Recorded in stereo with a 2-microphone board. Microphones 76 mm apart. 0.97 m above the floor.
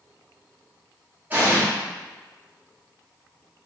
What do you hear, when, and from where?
1.3 s an explosion: 25° right (ahead or behind), 0.9 m